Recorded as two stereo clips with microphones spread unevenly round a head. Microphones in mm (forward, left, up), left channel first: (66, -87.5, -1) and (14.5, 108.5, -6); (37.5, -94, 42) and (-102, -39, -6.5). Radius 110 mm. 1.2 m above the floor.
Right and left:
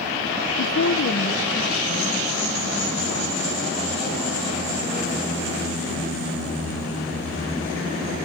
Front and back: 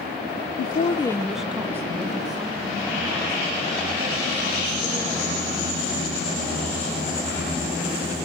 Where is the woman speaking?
45° right, 0.8 m; by 6.2 s 155° right, 7 m.